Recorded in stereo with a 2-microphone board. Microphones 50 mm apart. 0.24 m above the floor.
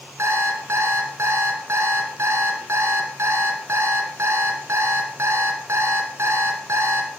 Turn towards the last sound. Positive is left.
turn(degrees=-65)  # may be behind; listen again after turning